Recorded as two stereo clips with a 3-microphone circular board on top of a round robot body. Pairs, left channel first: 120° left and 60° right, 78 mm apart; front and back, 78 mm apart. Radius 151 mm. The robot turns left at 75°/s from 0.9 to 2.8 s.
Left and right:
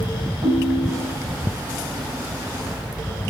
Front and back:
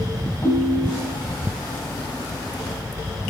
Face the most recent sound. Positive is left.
turn(degrees=170)